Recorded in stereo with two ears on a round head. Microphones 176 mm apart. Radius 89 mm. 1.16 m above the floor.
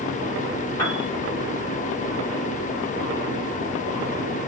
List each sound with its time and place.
0.8 s a piano: 20° left (ahead or behind), 2.5 m